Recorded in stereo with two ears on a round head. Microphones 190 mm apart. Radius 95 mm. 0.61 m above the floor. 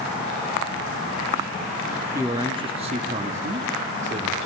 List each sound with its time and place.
2.1 s a man speaking: 15° right (ahead or behind), 0.6 m; by 4.5 s 30° right (ahead or behind), 1.2 m